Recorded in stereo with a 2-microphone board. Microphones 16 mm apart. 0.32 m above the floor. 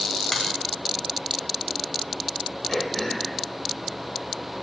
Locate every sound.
0.3 s a finger snap: 25° left (ahead or behind), 1.6 m
2.7 s throat clearing: 20° left (ahead or behind), 1.0 m